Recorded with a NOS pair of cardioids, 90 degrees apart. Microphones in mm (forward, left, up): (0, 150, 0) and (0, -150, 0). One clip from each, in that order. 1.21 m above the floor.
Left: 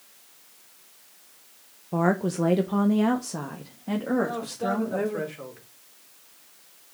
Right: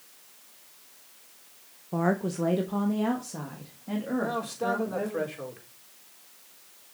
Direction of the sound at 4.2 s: 10° right.